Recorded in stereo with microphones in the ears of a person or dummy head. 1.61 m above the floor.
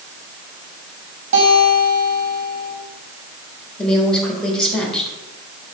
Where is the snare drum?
No snare drum in this recording.